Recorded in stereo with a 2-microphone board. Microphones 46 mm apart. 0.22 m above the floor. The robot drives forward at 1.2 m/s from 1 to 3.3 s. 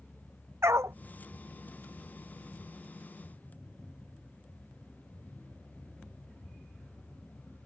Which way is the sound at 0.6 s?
80° right.